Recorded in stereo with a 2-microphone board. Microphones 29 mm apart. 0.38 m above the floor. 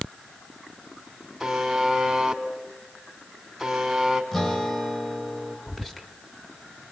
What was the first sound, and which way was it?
A buzzer, 5° right (ahead or behind).